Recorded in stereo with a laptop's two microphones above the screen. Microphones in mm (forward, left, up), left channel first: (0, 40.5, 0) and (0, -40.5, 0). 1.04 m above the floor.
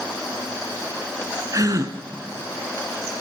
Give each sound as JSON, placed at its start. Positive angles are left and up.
{"t": 1.5, "sound": "a gasp", "side_deg": -45, "distance_m": 1.9}